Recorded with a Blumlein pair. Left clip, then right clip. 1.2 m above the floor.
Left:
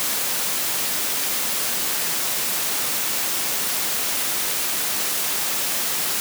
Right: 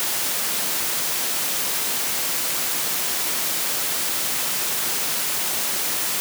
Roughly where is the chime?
I don't hear a chime.